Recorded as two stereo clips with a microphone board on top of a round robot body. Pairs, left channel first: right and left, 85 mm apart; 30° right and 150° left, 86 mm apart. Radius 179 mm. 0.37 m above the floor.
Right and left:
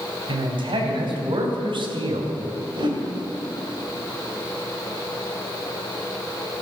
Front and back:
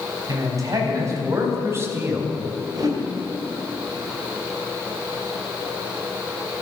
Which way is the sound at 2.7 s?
110° left.